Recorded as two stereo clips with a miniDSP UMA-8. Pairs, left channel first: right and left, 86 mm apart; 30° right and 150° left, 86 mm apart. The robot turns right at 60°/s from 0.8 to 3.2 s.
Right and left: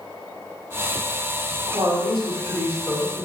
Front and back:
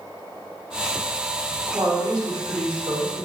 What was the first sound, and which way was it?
A woman speaking, 95° left.